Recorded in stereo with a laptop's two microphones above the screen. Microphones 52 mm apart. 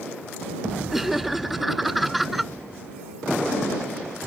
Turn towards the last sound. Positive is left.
turn(degrees=-5)  # may be behind; listen again after turning